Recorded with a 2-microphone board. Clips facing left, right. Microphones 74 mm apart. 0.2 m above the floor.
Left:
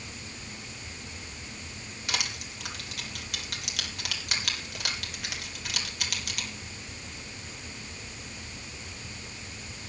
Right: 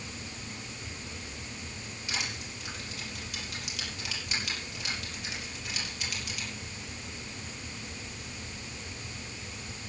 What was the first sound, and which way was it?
Crushing, 70° left (ahead or behind).